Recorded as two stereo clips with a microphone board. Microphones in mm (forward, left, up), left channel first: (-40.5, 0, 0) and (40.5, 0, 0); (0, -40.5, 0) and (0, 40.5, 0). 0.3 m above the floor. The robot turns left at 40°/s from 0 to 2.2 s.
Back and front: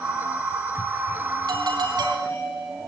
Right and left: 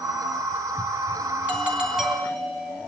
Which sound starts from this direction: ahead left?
A doorbell, at 1.5 s.